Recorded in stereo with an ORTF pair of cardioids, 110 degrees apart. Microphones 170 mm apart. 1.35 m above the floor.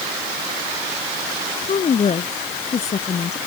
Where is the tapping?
No tapping in this recording.